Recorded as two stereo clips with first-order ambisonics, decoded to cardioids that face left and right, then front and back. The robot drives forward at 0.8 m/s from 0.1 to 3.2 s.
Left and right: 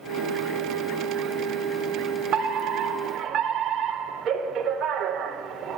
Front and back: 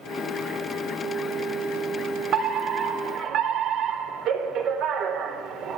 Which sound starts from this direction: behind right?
A fire alarm, at 2.3 s.